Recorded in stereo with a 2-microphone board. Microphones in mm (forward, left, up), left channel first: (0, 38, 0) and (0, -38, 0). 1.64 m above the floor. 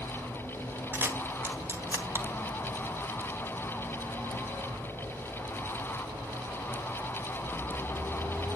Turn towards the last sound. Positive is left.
turn(degrees=-30)  # may be behind; listen again after turning